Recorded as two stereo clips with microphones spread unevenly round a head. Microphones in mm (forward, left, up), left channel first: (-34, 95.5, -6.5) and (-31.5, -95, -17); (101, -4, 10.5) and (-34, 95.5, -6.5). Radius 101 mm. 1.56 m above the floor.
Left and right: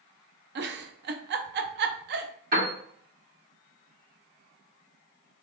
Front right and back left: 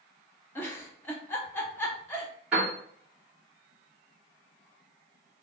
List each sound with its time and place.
0.6 s a giggle: 110° right, 0.7 m
2.5 s a piano: 130° right, 2.5 m